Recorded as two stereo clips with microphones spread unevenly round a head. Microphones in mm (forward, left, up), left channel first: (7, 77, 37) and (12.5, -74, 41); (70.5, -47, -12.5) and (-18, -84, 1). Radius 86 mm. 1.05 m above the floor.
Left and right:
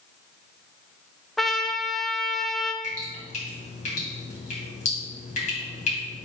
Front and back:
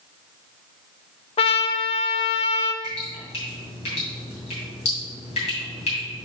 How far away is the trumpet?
About 0.6 m.